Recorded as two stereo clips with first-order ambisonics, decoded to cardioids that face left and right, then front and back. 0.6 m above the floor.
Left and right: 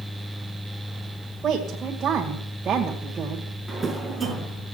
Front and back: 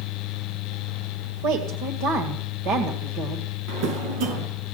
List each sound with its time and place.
1.4 s a woman speaking: 160° right, 2 m
3.7 s a drawer: 175° right, 3 m